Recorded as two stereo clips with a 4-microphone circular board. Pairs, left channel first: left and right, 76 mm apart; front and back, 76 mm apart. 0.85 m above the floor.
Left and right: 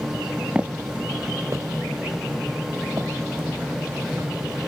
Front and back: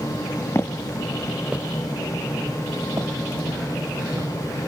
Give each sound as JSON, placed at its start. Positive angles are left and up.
{"t": 0.6, "sound": "footsteps", "azimuth_deg": -25, "distance_m": 1.0}